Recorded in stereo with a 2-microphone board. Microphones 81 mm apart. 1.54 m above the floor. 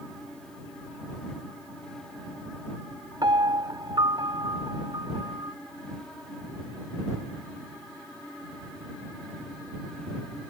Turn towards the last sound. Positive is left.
turn(degrees=-60)  # may be behind; listen again after turning